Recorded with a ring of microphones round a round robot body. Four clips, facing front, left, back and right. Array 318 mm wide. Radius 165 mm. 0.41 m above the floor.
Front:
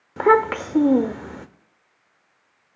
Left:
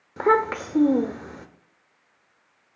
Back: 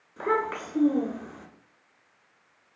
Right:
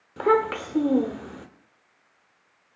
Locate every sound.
0.2 s a child speaking: 10° left, 0.9 m